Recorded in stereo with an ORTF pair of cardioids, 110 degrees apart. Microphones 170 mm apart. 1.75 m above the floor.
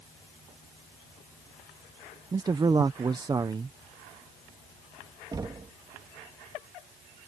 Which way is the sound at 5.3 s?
25° right.